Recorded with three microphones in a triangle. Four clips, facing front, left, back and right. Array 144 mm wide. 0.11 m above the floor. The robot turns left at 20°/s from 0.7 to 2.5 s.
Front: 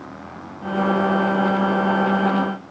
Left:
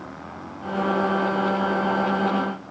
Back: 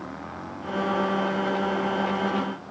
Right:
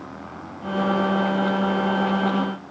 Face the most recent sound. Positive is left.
No sound to turn to.